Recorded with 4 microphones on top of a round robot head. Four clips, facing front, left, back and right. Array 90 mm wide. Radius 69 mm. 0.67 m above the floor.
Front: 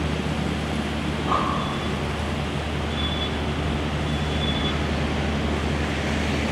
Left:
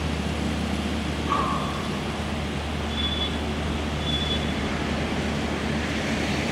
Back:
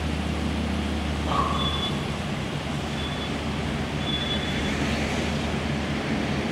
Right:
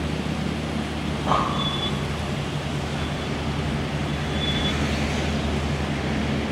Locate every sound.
1.1 s breathing: 90° right, 1.1 m